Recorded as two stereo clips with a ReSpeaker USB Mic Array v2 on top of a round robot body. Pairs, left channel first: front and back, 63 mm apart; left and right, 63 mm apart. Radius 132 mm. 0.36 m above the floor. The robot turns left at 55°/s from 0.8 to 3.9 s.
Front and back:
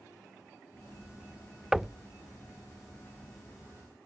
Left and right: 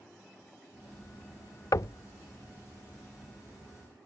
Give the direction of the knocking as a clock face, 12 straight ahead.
9 o'clock.